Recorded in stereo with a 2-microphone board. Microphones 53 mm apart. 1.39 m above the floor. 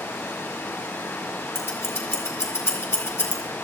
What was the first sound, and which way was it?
Running water, 80° left.